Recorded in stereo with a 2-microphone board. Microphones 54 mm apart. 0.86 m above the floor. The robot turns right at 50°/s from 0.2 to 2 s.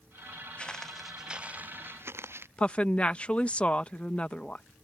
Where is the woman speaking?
25° left (ahead or behind).